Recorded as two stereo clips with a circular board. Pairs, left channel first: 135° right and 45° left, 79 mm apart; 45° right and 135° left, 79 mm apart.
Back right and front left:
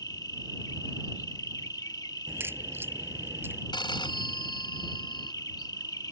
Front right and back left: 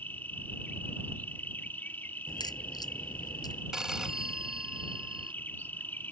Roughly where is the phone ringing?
Behind right.